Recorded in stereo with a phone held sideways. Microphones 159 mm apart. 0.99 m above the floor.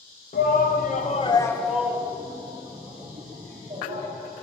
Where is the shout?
65° left (ahead or behind), 1.0 m; by 4.1 s 45° right (ahead or behind), 2.5 m.